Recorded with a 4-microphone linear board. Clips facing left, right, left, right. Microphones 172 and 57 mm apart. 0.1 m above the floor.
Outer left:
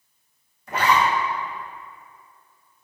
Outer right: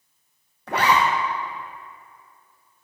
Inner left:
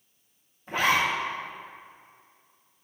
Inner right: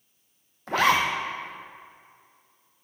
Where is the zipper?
80° right, 1.0 m.